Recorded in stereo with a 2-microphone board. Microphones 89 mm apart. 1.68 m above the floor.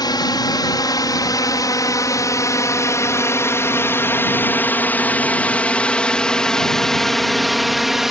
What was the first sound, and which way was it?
A drone, 50° left (ahead or behind).